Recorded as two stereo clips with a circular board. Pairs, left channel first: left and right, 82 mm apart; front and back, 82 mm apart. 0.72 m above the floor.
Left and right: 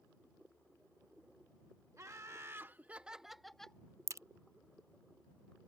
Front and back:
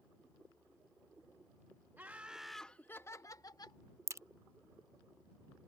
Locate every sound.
2.0 s laughter: 125° right; by 3.8 s 10° left
4.1 s a crack: 135° right